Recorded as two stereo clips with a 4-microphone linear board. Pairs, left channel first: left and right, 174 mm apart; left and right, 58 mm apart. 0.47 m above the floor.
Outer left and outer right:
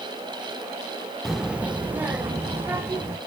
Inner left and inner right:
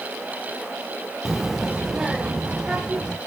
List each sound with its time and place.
1.2 s a child speaking: centre (ahead or behind), 0.6 m; by 3.2 s 10° right (ahead or behind), 2.5 m